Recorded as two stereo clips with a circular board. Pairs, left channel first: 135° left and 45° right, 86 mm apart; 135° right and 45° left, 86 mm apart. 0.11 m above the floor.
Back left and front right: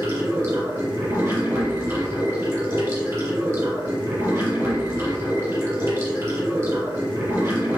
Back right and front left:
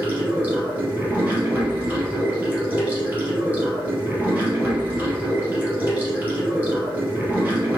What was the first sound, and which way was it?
Running water, 10° right.